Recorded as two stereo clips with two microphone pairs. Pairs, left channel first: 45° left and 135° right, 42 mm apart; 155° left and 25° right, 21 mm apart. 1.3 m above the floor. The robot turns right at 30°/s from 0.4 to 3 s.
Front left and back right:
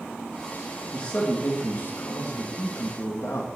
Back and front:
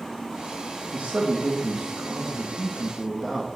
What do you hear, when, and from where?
0.9 s a man speaking: 15° right, 2 m; by 3.6 s 50° left, 2 m